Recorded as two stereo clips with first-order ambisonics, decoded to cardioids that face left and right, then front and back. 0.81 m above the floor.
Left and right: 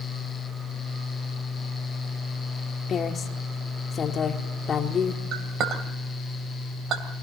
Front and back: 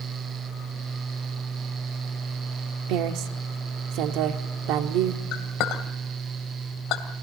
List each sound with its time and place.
2.9 s a woman speaking: 155° left, 1.6 m
5.3 s a clink: 35° right, 2.5 m